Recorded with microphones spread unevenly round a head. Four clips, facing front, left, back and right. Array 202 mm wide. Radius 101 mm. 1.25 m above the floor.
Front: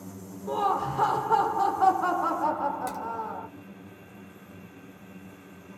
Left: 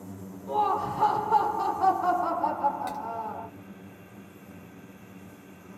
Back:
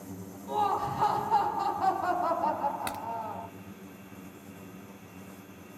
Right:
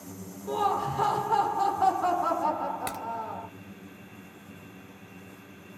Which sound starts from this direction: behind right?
A crack, at 2.9 s.